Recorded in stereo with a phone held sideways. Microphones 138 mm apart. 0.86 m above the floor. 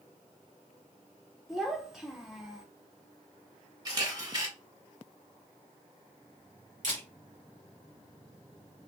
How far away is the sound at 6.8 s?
About 1.8 m.